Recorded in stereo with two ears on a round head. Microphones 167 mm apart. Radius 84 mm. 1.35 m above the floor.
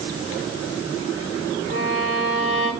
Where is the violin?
45° left (ahead or behind), 8 m.